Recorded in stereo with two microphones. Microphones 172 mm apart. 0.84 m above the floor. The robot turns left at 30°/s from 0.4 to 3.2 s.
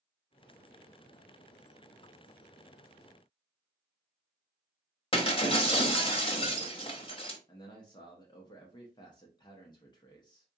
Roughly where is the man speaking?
Left.